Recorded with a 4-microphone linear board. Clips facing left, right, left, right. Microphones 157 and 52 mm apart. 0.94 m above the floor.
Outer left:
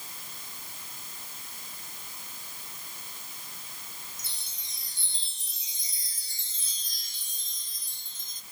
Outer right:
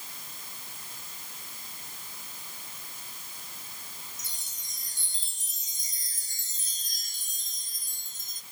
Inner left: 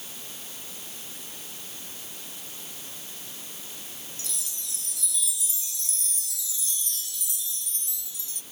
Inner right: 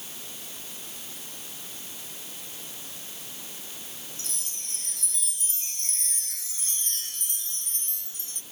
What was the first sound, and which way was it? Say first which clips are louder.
A chime: even, inner left 1 dB; 50° right (ahead or behind).